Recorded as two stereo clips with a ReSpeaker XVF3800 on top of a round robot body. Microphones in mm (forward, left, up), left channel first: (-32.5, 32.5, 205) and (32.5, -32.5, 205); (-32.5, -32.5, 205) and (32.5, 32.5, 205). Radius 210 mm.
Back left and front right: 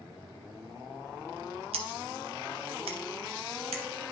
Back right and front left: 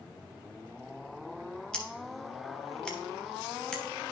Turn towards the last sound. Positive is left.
turn(degrees=-55)